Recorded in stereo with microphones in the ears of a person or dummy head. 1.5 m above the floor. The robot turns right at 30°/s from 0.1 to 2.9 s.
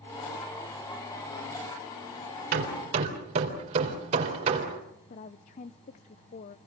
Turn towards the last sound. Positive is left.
turn(degrees=35)  # may be behind; listen again after turning